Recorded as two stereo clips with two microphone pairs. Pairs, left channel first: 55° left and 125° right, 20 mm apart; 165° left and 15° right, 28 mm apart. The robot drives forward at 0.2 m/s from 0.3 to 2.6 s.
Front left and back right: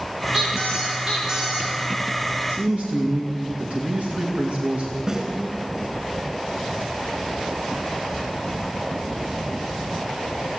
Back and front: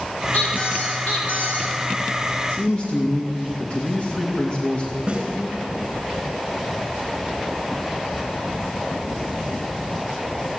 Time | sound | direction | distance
0.3 | a squeak | 170° left | 4 m
2.5 | a man speaking | 145° right | 2.5 m
5.1 | a snare drum | 65° right | 5.5 m